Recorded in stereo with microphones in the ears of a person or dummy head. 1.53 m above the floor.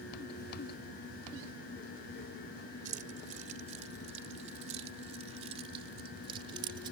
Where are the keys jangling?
50° right (ahead or behind); by 6.9 s 30° right (ahead or behind).